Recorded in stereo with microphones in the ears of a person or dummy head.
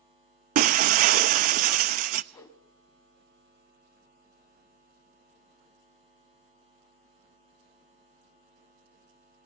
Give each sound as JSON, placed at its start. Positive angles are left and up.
{"t": 0.6, "sound": "breaking glass", "side_deg": -50, "distance_m": 0.7}
{"t": 2.3, "sound": "a whoosh", "side_deg": 10, "distance_m": 1.4}